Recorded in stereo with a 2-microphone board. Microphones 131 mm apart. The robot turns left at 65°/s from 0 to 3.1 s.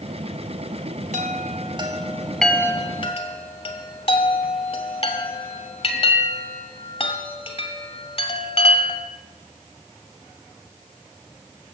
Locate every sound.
1.1 s a chime: 70° right (ahead or behind), 1.7 m; by 9.0 s 45° left (ahead or behind), 1.7 m